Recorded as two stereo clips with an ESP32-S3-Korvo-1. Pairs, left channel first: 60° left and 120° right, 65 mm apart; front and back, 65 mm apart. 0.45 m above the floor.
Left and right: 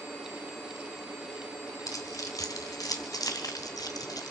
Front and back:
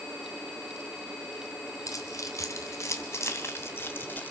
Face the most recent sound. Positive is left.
turn(degrees=60)